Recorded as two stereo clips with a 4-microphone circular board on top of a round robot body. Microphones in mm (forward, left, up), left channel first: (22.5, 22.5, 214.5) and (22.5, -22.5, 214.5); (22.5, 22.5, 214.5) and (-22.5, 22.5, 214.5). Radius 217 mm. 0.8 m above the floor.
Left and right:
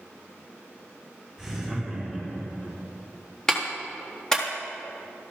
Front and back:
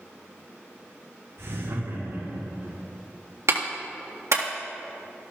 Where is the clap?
165° left, 2.0 m.